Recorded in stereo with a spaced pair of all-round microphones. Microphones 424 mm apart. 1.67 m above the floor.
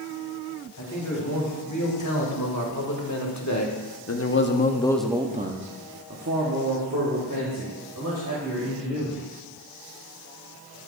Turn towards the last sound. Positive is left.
turn(degrees=-45)  # may be behind; listen again after turning